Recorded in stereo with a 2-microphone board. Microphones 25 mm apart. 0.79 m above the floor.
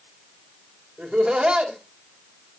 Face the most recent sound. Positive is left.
turn(degrees=-45)  # may be behind; listen again after turning